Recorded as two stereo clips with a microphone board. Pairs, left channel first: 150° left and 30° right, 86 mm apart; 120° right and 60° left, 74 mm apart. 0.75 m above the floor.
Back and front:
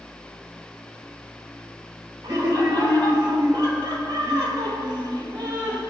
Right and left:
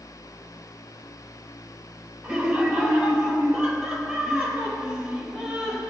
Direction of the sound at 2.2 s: 5° left.